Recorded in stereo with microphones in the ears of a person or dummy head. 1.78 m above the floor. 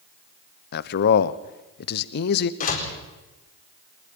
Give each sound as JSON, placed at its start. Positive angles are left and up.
{"t": 0.7, "sound": "a man speaking", "side_deg": 55, "distance_m": 1.0}
{"t": 2.6, "sound": "a door slam", "side_deg": 45, "distance_m": 4.0}